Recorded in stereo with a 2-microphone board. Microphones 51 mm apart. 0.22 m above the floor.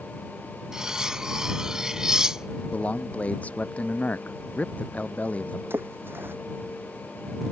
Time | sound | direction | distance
0.7 | cutlery clinking | 15° right (ahead or behind) | ?
2.7 | a man speaking | 30° left (ahead or behind) | ?
5.7 | a splash | 45° right (ahead or behind) | ?